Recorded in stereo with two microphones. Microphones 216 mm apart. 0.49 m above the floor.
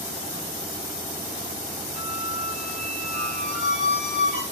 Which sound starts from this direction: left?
A squeak, at 1.9 s.